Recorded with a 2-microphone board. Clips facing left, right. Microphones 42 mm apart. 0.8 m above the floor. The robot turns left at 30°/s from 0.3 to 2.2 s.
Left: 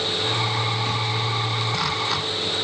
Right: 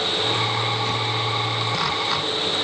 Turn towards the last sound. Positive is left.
No sound to turn to.